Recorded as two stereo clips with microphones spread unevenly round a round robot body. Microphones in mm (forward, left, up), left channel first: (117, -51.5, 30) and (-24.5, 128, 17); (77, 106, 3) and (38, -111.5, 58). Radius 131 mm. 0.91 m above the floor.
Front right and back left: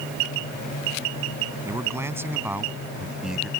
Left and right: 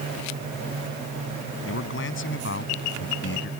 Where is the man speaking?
50° left; by 3.5 s 40° left.